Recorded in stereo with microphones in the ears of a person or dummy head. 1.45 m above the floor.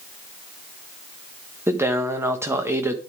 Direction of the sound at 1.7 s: 10° right (ahead or behind).